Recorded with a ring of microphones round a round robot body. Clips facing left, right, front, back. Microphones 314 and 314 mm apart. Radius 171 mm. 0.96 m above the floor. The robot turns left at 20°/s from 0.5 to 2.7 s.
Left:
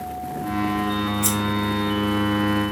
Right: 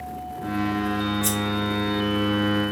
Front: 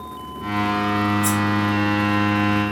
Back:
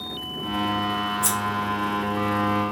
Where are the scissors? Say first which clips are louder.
Left 2 dB, front 9 dB; 115° left, 2.5 m.